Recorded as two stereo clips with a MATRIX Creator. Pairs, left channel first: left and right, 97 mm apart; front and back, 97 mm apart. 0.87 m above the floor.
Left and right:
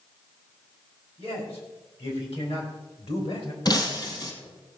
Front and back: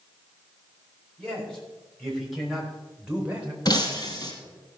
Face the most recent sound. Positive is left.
turn(degrees=45)